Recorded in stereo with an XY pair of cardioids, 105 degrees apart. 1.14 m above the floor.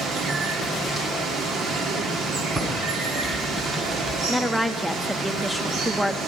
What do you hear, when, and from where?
0.0 s running water: 65° right, 1.9 m
2.5 s typing on a keyboard: 30° right, 6 m
4.3 s a woman speaking: 5° right, 1.1 m